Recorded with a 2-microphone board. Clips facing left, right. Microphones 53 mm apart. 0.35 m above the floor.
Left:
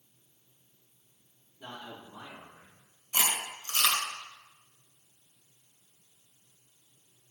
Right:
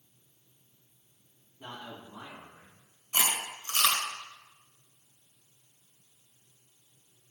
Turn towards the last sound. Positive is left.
turn(degrees=-20)  # may be behind; listen again after turning